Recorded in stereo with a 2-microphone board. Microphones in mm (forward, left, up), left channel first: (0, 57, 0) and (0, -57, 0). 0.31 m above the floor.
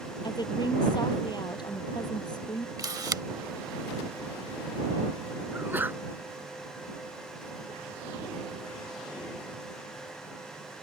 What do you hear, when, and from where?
0.2 s a woman speaking: 40° left (ahead or behind)
2.8 s a camera shutter: 30° right (ahead or behind)
5.5 s a sneeze: 15° right (ahead or behind)